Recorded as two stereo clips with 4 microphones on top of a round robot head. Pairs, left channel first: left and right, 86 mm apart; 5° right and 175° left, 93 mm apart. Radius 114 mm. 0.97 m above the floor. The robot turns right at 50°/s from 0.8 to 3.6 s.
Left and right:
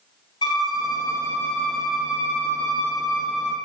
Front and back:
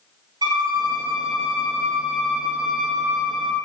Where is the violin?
130° left, 1.4 m; by 3.5 s 95° right, 1.4 m.